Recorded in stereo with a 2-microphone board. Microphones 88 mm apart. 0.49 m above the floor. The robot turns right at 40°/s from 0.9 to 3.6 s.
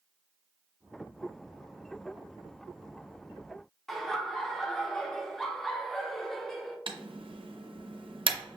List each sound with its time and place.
3.9 s laughter: 5° left (ahead or behind), 0.7 m
6.9 s typing on a keyboard: 75° right (ahead or behind), 0.5 m